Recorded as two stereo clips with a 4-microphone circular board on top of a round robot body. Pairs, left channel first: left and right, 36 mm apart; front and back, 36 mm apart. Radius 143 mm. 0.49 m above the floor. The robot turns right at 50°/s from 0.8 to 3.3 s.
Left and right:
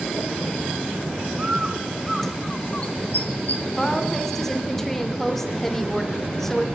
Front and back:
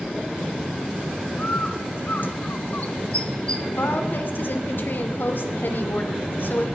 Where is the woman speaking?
10° left, 2.5 m.